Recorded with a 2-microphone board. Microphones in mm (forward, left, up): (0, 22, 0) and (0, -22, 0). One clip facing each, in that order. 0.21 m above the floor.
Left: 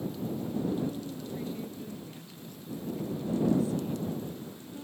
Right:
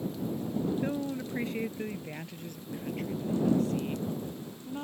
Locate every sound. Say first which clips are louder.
0.8 s a woman speaking: right 3 dB; 70° right (ahead or behind); by 4.8 s 50° right (ahead or behind)